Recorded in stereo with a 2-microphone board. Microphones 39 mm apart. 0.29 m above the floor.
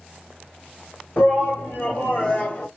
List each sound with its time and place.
1.2 s a shout: 45° left (ahead or behind), 2.0 m; by 2.7 s 30° left (ahead or behind), 1.6 m